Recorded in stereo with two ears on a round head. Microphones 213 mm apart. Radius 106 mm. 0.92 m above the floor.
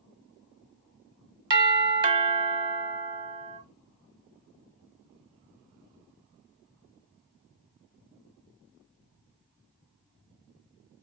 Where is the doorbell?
20° right (ahead or behind), 1.0 m.